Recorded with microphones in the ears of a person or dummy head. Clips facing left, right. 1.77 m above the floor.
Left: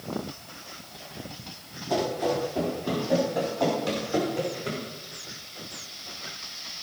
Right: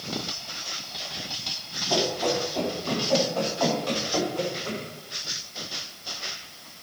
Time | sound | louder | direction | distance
1.9 | running footsteps | even | 5° left (ahead or behind) | 4.5 m